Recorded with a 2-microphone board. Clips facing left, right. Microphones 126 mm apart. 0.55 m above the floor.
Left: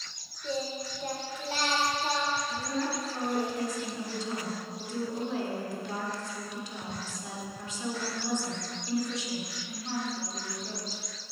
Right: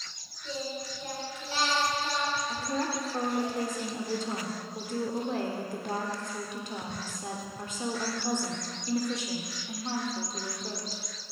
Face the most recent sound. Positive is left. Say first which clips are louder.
# right 1 dB
turn(degrees=-55)  # may be behind; listen again after turning